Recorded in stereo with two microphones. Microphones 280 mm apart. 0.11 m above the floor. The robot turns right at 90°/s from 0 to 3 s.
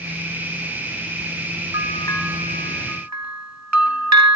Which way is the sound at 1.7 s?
135° left.